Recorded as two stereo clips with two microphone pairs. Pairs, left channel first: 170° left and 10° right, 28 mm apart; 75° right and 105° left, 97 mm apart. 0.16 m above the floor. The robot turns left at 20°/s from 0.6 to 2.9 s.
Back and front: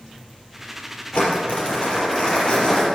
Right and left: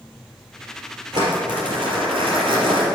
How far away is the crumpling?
About 3.5 m.